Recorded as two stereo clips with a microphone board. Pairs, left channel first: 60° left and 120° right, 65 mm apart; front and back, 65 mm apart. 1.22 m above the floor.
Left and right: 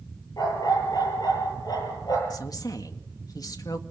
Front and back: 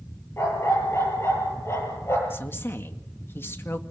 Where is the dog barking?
50° left, 8.5 m.